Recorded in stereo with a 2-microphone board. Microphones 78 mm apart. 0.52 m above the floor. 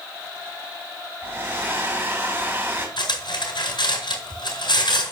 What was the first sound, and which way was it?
A hair dryer, 30° right (ahead or behind).